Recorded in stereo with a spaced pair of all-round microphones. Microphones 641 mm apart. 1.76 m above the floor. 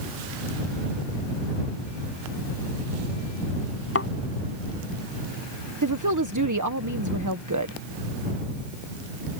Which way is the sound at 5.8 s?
30° right (ahead or behind).